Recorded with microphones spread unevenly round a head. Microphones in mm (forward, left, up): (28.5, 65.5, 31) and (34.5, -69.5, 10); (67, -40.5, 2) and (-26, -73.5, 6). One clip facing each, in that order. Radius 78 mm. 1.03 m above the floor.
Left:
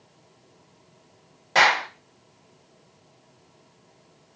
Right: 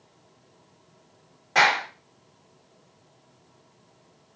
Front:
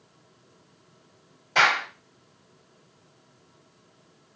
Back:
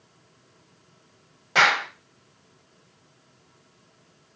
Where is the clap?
155° left, 1.4 m.